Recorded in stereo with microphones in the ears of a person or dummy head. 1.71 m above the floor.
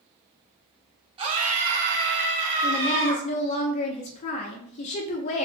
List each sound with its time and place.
1.2 s a scream: 35° right (ahead or behind), 0.8 m; by 3.2 s 70° right (ahead or behind), 1.6 m
2.6 s a woman speaking: 35° left (ahead or behind), 0.6 m